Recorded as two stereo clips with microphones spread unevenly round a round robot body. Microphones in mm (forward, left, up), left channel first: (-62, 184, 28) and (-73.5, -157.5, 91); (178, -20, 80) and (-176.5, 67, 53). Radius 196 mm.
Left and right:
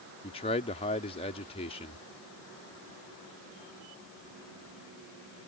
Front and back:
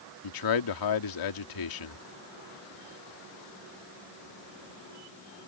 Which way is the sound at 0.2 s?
15° left.